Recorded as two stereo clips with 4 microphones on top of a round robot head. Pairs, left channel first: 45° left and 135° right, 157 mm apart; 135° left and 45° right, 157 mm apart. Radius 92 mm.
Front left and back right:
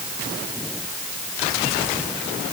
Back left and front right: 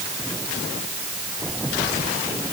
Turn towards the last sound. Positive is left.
No sound to turn to.